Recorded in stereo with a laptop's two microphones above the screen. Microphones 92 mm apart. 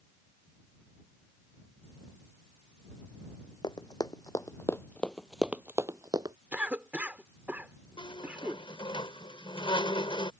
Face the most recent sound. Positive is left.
turn(degrees=80)